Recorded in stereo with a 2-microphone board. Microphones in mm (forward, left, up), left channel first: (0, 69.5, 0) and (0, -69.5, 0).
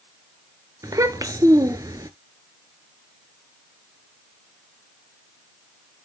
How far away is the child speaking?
About 1.0 m.